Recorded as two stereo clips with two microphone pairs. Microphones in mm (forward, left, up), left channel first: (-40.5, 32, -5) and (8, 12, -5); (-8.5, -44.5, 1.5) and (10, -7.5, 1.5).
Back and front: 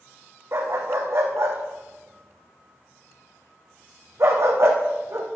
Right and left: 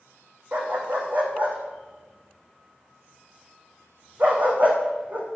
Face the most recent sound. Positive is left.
turn(degrees=10)